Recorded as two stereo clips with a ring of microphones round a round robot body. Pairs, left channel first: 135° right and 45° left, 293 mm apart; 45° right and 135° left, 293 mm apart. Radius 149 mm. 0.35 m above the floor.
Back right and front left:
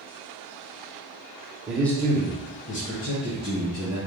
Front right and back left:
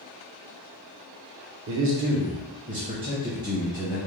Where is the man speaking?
130° left, 1.1 m; by 4.0 s 145° right, 1.7 m.